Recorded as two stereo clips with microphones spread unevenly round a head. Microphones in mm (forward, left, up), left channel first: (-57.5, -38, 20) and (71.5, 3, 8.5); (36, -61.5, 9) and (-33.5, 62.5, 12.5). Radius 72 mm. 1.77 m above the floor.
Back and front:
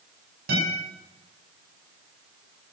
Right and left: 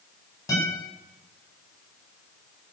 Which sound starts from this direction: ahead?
A guitar, at 0.5 s.